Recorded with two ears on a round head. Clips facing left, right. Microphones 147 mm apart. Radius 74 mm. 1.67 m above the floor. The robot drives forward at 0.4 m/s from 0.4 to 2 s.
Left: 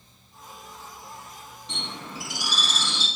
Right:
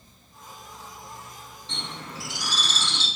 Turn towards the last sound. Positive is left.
turn(degrees=10)  # may be behind; listen again after turning